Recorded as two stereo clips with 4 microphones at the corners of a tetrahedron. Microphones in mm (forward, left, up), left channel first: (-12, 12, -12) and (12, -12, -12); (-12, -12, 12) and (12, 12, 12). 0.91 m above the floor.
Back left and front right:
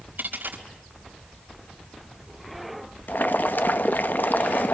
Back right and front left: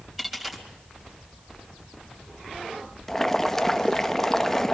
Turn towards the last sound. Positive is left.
turn(degrees=145)